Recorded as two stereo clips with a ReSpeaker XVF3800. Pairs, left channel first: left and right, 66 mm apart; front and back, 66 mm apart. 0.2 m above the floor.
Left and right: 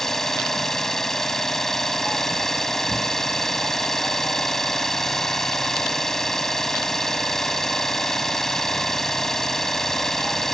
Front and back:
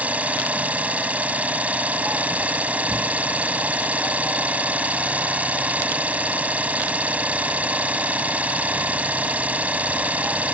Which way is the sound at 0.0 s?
165° left.